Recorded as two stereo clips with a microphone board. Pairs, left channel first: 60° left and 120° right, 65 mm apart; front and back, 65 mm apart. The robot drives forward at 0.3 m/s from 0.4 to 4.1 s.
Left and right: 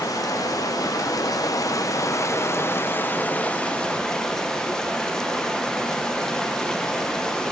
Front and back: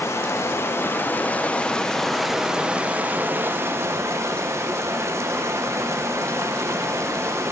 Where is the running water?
45° left, 0.8 m; by 7.5 s 140° left, 0.8 m.